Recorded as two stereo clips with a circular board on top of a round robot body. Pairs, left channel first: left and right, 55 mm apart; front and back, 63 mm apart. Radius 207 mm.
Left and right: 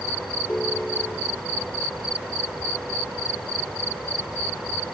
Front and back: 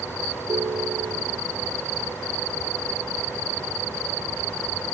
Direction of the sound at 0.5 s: 160° left.